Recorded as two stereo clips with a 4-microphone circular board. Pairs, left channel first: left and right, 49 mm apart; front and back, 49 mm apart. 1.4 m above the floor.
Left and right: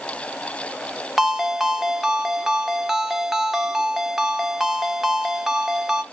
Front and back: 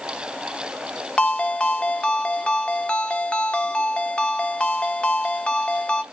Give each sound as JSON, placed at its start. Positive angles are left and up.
{"t": 1.2, "sound": "a ringtone", "azimuth_deg": -20, "distance_m": 0.6}